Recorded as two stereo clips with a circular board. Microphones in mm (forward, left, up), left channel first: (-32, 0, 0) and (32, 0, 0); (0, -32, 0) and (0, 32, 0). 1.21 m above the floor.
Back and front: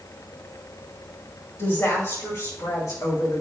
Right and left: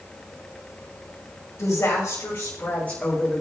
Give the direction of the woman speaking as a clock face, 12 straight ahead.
4 o'clock.